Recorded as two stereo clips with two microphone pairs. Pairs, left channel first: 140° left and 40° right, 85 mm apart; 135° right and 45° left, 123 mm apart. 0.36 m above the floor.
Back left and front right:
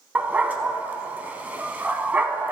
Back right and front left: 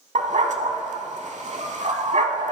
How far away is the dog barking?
About 0.7 m.